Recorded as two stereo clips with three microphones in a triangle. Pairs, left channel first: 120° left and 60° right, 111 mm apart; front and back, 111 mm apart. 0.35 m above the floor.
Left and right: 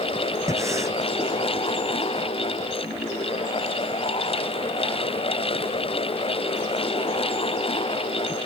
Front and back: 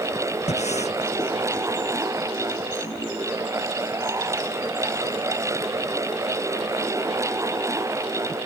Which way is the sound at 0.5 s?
5° left.